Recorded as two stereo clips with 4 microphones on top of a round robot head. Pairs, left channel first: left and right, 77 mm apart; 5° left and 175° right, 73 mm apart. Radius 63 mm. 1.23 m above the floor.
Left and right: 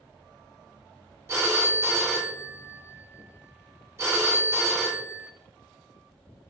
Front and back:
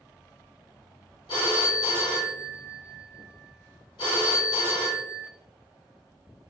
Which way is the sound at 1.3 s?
35° right.